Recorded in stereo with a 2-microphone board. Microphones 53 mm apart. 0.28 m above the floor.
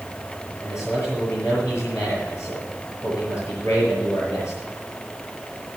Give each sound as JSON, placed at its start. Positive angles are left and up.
{"t": 0.6, "sound": "a man speaking", "side_deg": 60, "distance_m": 6.5}